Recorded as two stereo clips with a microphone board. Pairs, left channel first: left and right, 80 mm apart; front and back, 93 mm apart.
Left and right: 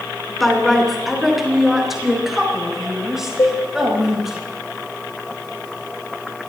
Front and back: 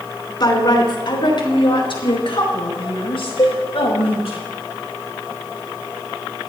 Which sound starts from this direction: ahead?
A woman speaking, at 0.4 s.